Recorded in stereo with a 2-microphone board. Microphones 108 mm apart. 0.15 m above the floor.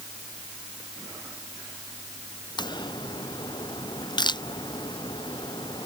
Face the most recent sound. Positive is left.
turn(degrees=45)  # may be behind; listen again after turning